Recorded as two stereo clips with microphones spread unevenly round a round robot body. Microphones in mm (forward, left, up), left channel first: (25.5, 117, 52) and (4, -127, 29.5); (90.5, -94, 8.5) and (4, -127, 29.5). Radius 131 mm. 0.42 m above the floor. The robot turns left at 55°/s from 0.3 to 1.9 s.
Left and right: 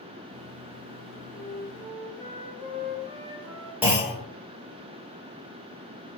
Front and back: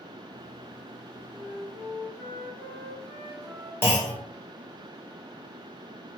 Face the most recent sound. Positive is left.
turn(degrees=-20)